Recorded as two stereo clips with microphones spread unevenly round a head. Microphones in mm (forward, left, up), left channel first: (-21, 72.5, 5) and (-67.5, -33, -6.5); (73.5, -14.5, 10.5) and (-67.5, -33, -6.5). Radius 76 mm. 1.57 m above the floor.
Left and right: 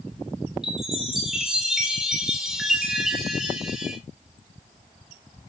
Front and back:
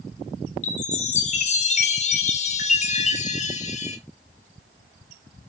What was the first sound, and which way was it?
A chime, 25° right.